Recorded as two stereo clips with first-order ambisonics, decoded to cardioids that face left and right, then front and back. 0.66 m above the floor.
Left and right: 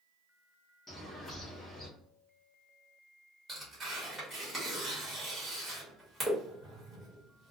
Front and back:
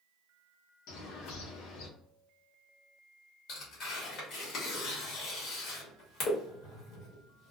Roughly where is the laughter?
No laughter in this recording.